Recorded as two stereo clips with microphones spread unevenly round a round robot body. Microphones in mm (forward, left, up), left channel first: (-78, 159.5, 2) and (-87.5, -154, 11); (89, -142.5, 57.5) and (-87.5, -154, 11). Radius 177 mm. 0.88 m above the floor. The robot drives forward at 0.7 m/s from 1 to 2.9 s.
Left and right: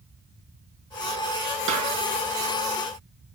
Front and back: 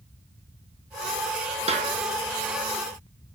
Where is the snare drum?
120° right, 5 m.